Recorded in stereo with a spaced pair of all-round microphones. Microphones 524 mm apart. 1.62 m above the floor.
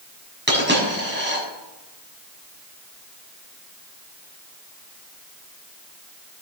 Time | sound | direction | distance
0.5 | a dropped coin | 20° right (ahead or behind) | 6.5 m